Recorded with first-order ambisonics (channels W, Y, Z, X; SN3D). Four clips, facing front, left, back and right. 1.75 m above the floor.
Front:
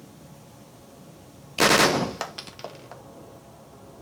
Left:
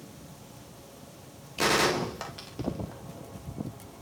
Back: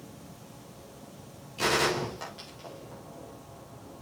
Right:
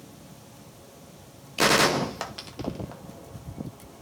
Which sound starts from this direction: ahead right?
A gunshot, at 1.6 s.